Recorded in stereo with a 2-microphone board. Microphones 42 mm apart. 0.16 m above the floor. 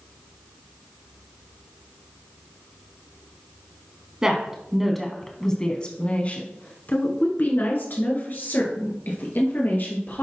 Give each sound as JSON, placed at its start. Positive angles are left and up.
{"t": 4.2, "sound": "a woman speaking", "side_deg": -20, "distance_m": 1.1}